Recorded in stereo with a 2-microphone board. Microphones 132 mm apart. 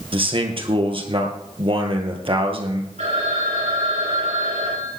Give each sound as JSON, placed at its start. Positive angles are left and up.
{"t": 0.1, "sound": "a man speaking", "side_deg": -45, "distance_m": 2.5}
{"t": 3.0, "sound": "a phone ringing", "side_deg": -65, "distance_m": 8.5}